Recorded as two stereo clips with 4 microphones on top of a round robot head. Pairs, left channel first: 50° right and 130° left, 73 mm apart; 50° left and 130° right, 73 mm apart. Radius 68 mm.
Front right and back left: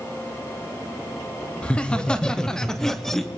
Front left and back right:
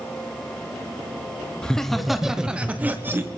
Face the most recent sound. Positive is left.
turn(degrees=-130)